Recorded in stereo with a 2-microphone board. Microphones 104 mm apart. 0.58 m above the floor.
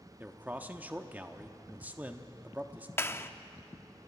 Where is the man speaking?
15° right (ahead or behind), 0.9 m.